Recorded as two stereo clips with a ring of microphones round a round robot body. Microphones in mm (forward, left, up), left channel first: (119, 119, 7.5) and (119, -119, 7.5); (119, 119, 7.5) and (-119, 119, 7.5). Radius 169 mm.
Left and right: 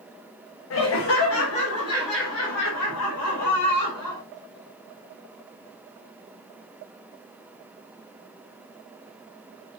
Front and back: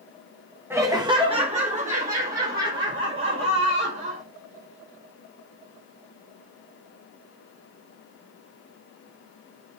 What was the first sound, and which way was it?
Laughter, 100° left.